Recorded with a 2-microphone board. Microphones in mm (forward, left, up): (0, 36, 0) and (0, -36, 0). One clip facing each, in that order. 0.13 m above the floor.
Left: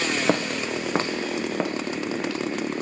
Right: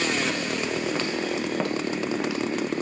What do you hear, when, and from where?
0.3 s footsteps: 85° left, 0.7 m; by 2.4 s 10° right (ahead or behind), 1.7 m